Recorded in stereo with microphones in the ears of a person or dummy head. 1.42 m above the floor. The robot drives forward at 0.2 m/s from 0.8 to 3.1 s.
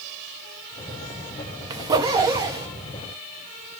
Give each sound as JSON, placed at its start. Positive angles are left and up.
{"t": 1.7, "sound": "a zipper", "side_deg": -25, "distance_m": 0.6}